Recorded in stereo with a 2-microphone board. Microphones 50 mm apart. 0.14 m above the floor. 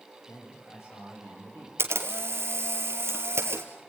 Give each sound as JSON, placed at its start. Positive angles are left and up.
{"t": 0.3, "sound": "a man speaking", "side_deg": 70, "distance_m": 9.5}
{"t": 1.8, "sound": "a camera shutter", "side_deg": -60, "distance_m": 2.5}